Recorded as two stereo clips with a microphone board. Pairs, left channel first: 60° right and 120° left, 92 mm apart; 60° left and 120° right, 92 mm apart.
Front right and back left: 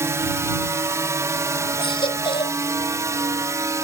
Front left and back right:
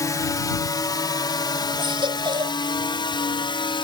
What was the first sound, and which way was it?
A drone, 80° left.